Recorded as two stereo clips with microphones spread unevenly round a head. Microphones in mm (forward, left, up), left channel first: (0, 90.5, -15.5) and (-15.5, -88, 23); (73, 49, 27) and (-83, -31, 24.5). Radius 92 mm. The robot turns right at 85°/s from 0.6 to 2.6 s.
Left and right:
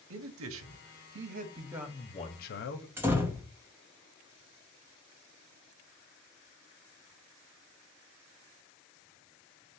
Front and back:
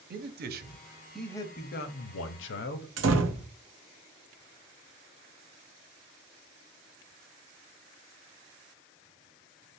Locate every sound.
0.1 s a man speaking: 110° right, 0.6 m; by 2.9 s 60° left, 0.6 m
3.0 s a door slam: 170° right, 0.6 m